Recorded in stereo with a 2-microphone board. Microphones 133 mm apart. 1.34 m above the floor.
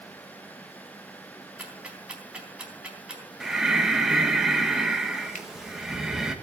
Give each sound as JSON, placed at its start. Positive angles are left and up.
{"t": 1.6, "sound": "ticking", "side_deg": -10, "distance_m": 3.5}
{"t": 3.4, "sound": "breathing", "side_deg": -5, "distance_m": 1.5}
{"t": 5.3, "sound": "a finger snap", "side_deg": 80, "distance_m": 2.0}